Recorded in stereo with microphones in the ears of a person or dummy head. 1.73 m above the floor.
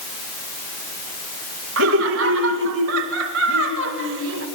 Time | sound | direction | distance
1.8 | laughter | 75° right (ahead or behind) | 2 m